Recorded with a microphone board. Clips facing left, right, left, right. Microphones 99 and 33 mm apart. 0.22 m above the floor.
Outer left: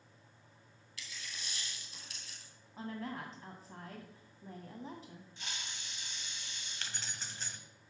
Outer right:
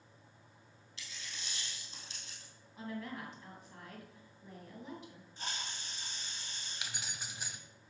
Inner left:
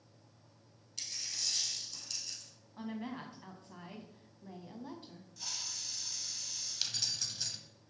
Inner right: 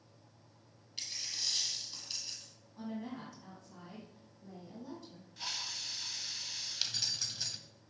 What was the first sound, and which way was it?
A dropped coin, 25° right (ahead or behind).